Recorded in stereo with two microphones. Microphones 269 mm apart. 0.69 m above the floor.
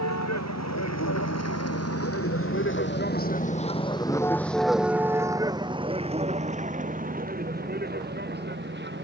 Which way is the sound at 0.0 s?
85° left.